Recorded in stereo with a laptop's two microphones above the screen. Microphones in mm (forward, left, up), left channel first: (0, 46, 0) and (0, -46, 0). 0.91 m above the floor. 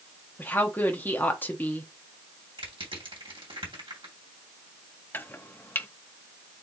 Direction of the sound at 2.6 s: 65° right (ahead or behind).